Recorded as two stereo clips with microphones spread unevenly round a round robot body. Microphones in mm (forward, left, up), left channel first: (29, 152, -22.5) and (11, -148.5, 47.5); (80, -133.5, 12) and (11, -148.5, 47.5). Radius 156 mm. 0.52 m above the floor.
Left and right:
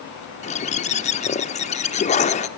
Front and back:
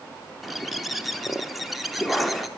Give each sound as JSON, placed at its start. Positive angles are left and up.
{"t": 0.4, "sound": "a bird", "azimuth_deg": 60, "distance_m": 0.8}